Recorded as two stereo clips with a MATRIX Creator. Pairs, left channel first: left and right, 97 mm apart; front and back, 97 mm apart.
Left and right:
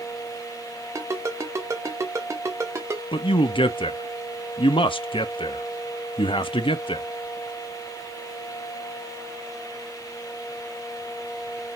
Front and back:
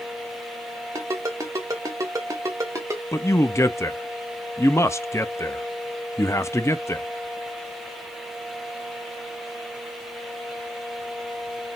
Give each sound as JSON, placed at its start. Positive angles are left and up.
{"t": 0.9, "sound": "a ringtone", "azimuth_deg": -135, "distance_m": 1.0}
{"t": 3.1, "sound": "a man speaking", "azimuth_deg": 60, "distance_m": 0.5}